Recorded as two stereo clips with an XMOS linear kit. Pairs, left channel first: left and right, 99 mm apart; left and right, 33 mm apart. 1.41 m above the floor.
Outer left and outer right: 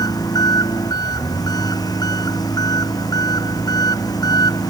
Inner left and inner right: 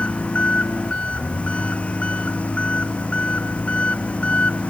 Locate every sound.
0.0 s an engine running: 40° left (ahead or behind)